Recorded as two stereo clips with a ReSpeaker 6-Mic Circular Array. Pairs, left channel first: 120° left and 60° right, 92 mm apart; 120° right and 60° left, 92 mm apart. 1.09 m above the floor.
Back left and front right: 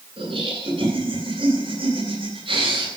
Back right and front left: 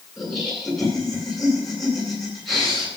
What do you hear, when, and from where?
0.2 s laughter: 30° right, 10 m